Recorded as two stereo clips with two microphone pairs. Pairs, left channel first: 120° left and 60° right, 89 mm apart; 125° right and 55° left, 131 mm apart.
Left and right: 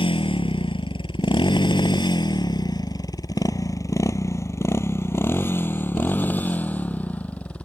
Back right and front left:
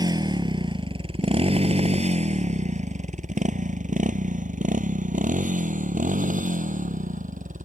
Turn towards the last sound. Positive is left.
turn(degrees=45)